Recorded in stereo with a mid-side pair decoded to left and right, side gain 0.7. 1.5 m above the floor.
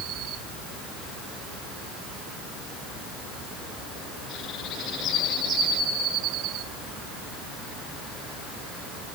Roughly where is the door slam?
No door slam in this recording.